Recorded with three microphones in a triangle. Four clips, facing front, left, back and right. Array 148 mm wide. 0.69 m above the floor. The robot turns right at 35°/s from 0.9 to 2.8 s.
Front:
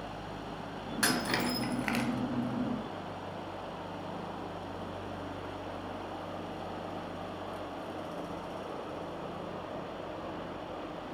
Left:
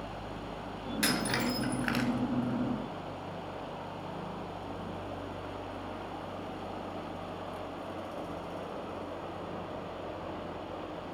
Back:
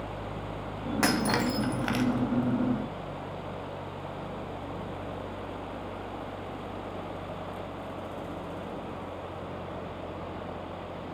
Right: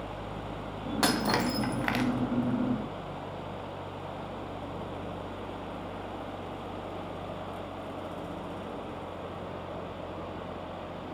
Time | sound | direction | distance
1.0 | breaking glass | 130° right | 2.5 m